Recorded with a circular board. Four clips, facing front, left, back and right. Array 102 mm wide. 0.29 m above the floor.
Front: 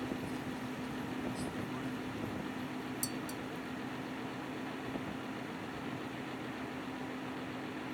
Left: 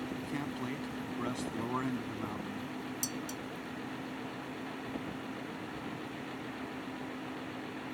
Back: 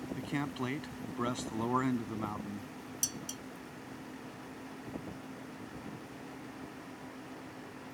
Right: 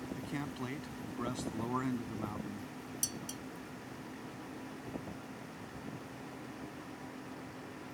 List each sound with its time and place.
0.2 s a man speaking: 175° left
3.0 s dishes clattering: 165° right